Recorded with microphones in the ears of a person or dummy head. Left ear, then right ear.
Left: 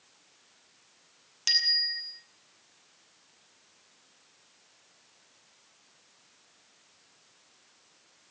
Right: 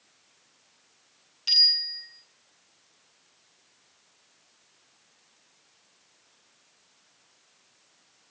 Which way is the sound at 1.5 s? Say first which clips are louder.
Right 4 dB; 55° left (ahead or behind).